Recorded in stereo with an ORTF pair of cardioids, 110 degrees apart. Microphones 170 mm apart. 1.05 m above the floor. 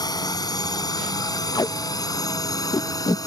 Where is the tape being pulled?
25° left.